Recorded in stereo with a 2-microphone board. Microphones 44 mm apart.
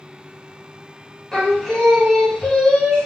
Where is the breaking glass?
No breaking glass in this recording.